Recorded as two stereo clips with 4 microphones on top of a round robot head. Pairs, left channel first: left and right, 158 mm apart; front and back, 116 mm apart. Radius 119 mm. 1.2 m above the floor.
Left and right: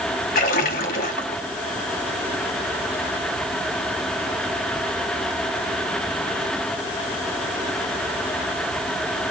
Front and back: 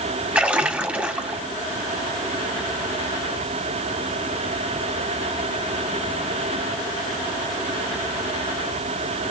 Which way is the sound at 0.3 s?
100° left.